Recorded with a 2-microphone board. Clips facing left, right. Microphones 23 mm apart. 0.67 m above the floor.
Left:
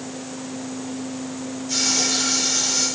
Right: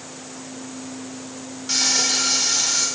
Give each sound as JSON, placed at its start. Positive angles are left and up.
{"t": 1.7, "sound": "frying", "side_deg": -45, "distance_m": 4.0}